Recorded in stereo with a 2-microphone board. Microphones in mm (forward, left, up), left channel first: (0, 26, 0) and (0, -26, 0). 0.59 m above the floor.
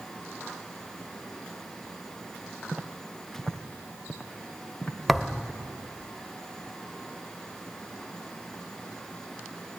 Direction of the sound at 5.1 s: Centre (ahead or behind).